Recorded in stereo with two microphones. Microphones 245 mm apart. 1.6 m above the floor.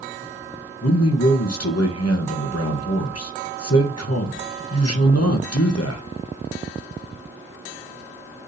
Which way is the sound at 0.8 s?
80° left.